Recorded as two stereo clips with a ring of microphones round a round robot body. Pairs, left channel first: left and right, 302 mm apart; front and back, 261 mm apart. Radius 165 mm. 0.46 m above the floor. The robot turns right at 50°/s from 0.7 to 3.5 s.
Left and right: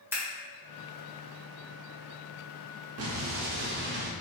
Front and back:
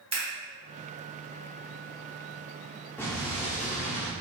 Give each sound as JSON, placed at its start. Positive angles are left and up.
{"t": 0.1, "sound": "scissors", "azimuth_deg": -165, "distance_m": 1.3}
{"t": 3.0, "sound": "an explosion", "azimuth_deg": -80, "distance_m": 0.6}